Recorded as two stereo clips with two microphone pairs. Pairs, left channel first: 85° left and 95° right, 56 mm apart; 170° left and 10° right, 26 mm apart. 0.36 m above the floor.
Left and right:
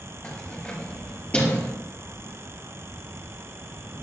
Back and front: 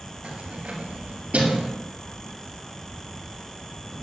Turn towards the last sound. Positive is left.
turn(degrees=20)